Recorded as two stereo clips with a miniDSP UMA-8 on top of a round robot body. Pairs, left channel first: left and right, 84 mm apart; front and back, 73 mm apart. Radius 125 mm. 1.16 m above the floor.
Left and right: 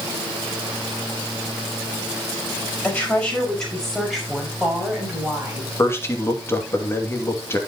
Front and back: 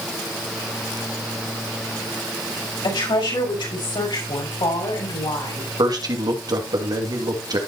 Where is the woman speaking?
15° left, 5.5 m; by 5.7 s 10° right, 6.5 m.